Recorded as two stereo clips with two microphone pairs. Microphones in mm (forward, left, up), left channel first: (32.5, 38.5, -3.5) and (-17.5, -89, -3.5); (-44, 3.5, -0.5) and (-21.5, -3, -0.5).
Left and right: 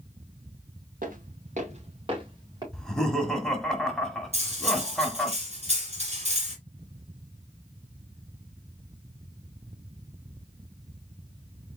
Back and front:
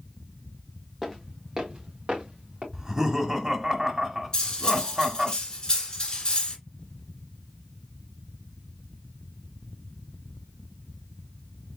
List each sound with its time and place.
1.0 s footsteps: 100° right, 2.5 m; by 2.6 s 50° right, 3 m
2.7 s laughter: 15° right, 1.0 m
4.3 s cutlery clinking: 145° right, 2.0 m